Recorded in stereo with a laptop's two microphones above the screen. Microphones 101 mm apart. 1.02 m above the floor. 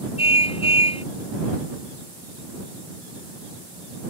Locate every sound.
0.2 s a car horn: 70° left (ahead or behind)